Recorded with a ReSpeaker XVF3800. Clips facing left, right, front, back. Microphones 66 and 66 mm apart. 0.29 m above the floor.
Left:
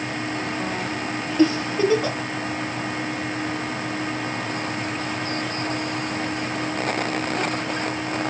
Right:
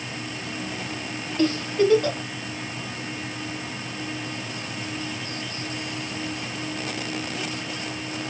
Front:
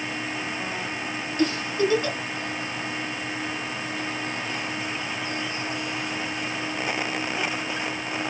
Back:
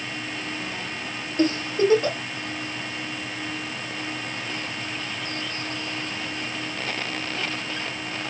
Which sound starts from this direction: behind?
A giggle, at 1.4 s.